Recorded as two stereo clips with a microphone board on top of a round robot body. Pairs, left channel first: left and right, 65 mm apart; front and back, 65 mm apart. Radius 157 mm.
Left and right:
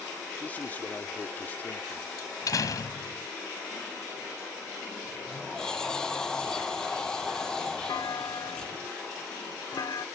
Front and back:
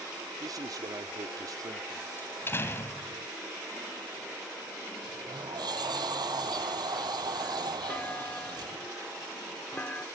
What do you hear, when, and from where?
0.4 s a man speaking: 155° left
2.2 s a door slam: 60° left
5.0 s a sliding door: 170° left
7.9 s a clunk: 75° left